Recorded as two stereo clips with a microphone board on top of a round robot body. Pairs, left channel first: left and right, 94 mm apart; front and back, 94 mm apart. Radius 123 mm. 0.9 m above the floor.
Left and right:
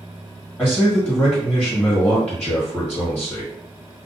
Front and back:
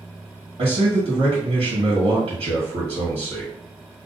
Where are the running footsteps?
I don't hear running footsteps.